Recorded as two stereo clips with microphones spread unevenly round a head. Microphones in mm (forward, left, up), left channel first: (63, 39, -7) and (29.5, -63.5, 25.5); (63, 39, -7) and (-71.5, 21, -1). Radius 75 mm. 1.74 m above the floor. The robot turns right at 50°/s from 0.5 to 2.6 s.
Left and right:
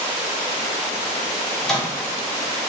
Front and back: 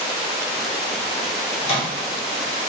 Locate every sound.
1.6 s a microwave: 35° right, 0.7 m; by 2.1 s 10° right, 0.7 m